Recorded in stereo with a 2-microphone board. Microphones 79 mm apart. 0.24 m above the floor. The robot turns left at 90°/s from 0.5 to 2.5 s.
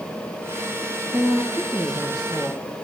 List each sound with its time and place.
1.1 s a woman speaking: 85° right, 4.5 m; by 2.7 s 150° left, 4.5 m